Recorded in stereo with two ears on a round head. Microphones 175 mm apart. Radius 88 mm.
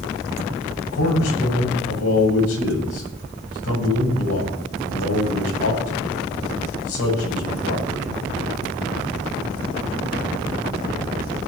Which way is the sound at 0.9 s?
85° left.